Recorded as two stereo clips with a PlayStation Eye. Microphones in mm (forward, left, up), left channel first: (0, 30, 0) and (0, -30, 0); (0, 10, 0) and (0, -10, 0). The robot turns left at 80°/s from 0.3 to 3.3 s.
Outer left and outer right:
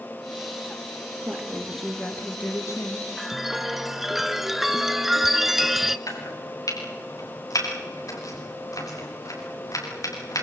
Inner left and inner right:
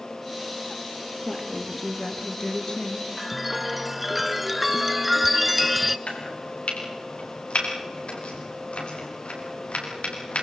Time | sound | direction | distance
1.2 | a woman speaking | 130° right | 1.9 m
3.2 | a chime | centre (ahead or behind) | 0.8 m
6.1 | chopping | 70° left (ahead or behind) | 6.5 m